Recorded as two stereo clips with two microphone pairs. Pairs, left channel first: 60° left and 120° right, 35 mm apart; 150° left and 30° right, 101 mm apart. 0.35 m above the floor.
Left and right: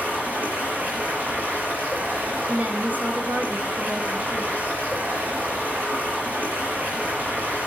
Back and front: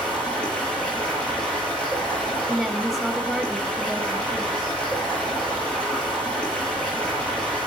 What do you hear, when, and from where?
0.0 s running water: 130° right, 7.5 m
2.5 s a woman speaking: 120° right, 1.9 m